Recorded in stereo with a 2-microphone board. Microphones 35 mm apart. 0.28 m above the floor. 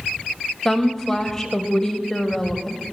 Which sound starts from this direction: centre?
A woman speaking, at 0.7 s.